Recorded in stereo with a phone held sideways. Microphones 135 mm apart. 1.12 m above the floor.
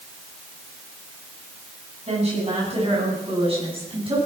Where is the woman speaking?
50° right (ahead or behind), 8 m; by 4.3 s 40° right (ahead or behind), 8.5 m.